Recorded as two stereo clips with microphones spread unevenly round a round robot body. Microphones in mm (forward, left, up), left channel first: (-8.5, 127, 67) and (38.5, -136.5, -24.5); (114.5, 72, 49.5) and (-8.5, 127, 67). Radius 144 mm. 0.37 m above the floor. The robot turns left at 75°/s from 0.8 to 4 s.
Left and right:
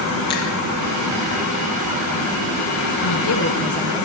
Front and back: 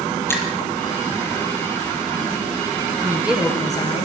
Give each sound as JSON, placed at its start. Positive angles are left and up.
{"t": 0.3, "sound": "a finger snap", "azimuth_deg": 50, "distance_m": 7.5}
{"t": 3.0, "sound": "a woman speaking", "azimuth_deg": 90, "distance_m": 7.0}